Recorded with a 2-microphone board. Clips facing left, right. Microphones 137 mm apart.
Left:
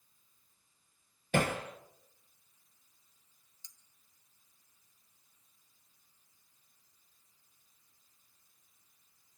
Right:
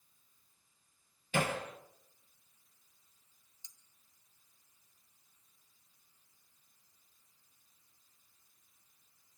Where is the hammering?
55° left (ahead or behind), 3 m.